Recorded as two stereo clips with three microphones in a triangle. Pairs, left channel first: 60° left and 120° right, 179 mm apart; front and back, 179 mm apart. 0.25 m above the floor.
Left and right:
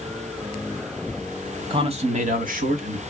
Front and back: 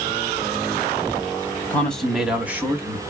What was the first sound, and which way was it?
A man speaking, 75° right.